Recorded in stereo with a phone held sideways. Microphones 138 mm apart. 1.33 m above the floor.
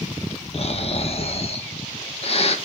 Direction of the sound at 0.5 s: 50° left (ahead or behind).